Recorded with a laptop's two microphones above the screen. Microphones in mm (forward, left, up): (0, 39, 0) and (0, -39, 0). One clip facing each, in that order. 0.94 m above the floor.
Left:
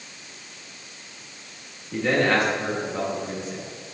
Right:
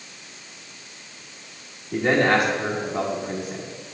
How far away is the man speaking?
About 1.1 m.